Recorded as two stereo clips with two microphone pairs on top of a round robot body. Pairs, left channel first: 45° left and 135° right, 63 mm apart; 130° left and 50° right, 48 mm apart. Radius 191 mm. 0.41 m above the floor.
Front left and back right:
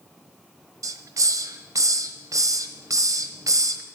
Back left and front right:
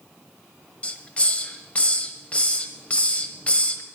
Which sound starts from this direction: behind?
A hiss, at 0.8 s.